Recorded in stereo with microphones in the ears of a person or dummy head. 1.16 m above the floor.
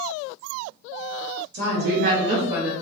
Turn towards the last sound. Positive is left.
turn(degrees=5)  # may be behind; listen again after turning